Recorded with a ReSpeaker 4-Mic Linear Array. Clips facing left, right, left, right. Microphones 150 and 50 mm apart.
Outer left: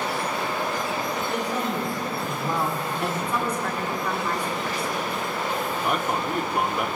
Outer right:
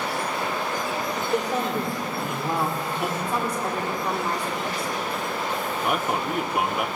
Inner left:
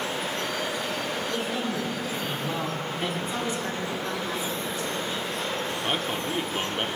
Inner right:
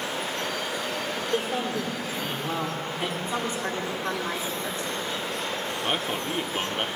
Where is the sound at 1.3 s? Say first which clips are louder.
Outer right 5 dB, inner right 5 dB; 45° right (ahead or behind), 1.8 m; by 3.1 s 5° right (ahead or behind), 1.6 m.